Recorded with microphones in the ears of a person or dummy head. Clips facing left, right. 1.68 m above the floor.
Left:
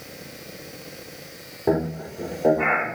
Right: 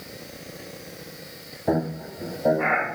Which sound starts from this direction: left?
Laughter, at 1.7 s.